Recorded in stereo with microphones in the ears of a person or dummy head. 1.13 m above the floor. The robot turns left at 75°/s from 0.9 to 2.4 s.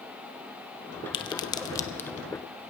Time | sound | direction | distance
1.1 | a crack | 25° left (ahead or behind) | 0.5 m